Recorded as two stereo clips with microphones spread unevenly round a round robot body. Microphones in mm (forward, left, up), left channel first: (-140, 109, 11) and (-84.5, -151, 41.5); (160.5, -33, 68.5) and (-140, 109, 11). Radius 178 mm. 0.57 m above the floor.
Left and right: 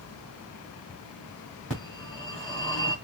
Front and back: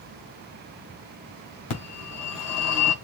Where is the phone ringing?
15° left, 3 m.